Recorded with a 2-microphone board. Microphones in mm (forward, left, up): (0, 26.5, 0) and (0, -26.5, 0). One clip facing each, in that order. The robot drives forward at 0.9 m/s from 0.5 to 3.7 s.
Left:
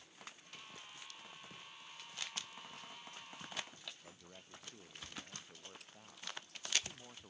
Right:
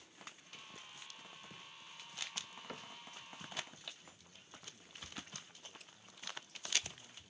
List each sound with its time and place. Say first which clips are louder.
2.7 s a cupboard door: right 4 dB; 60° right (ahead or behind)
4.0 s a man speaking: left 4 dB; 45° left (ahead or behind)